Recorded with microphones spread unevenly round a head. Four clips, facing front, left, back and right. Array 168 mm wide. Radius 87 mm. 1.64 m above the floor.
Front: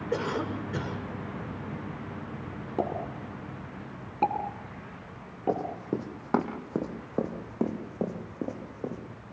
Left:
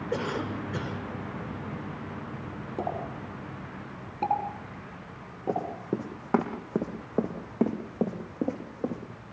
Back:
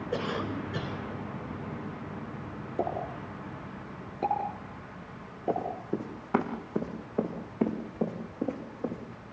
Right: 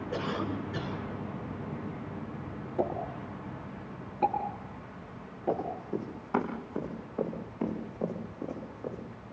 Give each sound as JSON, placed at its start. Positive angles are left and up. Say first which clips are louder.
{"t": 0.1, "sound": "a cough", "louder": "left 2 dB, front 2 dB", "azimuth_deg": 40, "distance_m": 7.5}
{"t": 2.8, "sound": "a pop", "louder": "right 1 dB, front 1 dB", "azimuth_deg": 10, "distance_m": 6.0}
{"t": 5.5, "sound": "running footsteps", "louder": "left 2 dB, front 1 dB", "azimuth_deg": 45, "distance_m": 5.5}